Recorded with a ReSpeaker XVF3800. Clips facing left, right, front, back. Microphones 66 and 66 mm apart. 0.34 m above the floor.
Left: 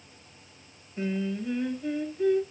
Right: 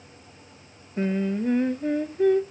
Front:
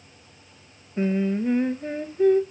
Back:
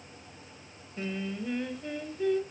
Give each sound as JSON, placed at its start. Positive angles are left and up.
{"t": 1.0, "sound": "singing", "azimuth_deg": -50, "distance_m": 0.6}